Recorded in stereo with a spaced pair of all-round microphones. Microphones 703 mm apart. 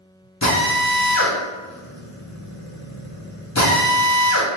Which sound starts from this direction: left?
A drill, at 0.4 s.